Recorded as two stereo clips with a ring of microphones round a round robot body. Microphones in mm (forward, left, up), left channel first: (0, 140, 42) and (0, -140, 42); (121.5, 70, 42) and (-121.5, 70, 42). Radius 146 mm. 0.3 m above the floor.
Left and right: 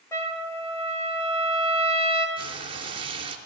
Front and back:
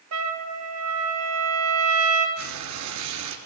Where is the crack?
No crack in this recording.